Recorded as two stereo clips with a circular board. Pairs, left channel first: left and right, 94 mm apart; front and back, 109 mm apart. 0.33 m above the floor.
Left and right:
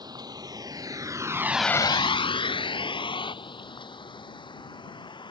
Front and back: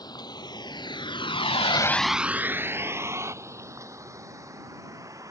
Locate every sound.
0.0 s a vehicle: 50° right; by 5.3 s 120° left